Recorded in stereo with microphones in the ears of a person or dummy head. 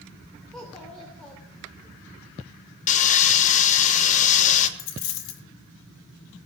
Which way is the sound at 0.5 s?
5° left (ahead or behind).